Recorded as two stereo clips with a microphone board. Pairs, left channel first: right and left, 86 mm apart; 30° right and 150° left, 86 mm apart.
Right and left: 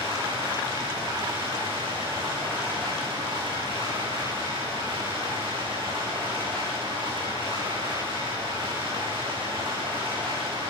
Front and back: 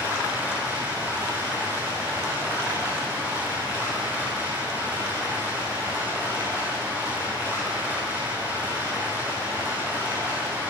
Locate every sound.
0.0 s running water: 85° left, 10 m